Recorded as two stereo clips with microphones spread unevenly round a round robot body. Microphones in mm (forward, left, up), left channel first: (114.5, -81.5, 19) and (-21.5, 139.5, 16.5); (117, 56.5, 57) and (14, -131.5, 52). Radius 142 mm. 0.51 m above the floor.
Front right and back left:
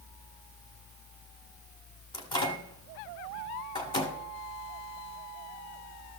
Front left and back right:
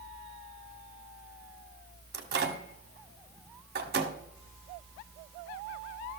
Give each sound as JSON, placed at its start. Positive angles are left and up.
{"t": 2.1, "sound": "a microwave", "azimuth_deg": -130, "distance_m": 1.4}